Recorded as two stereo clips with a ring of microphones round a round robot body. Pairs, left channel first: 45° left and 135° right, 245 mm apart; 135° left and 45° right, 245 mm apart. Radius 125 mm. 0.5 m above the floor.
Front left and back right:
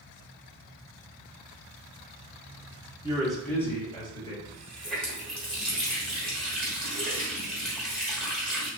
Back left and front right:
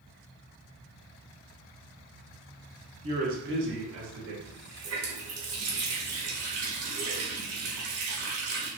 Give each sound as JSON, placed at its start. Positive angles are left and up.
{"t": 3.0, "sound": "a man speaking", "azimuth_deg": -75, "distance_m": 0.7}
{"t": 4.5, "sound": "a running tap", "azimuth_deg": -40, "distance_m": 1.3}